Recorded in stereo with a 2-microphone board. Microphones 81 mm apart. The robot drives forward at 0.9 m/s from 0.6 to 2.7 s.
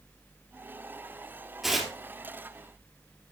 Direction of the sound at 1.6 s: Centre (ahead or behind).